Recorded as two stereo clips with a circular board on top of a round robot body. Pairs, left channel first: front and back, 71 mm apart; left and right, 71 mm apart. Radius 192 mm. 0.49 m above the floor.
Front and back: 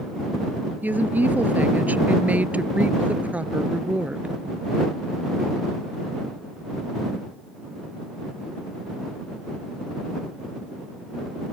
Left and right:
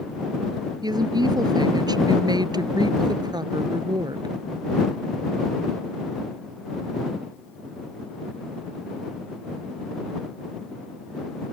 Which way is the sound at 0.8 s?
110° right.